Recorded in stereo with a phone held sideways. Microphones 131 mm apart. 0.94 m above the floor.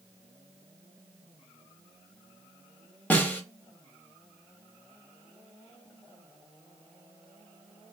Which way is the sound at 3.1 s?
10° left (ahead or behind).